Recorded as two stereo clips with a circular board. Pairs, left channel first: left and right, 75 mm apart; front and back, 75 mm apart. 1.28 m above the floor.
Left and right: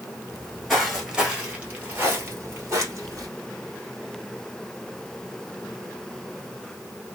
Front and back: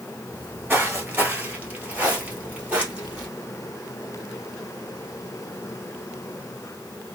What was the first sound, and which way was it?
Footsteps, 160° left.